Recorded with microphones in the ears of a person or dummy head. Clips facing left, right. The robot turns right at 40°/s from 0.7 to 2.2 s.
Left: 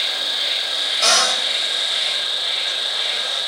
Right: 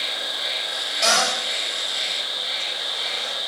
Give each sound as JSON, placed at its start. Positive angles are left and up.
{"t": 0.0, "sound": "an insect", "azimuth_deg": 35, "distance_m": 1.2}
{"t": 1.0, "sound": "a cupboard door", "side_deg": 0, "distance_m": 1.0}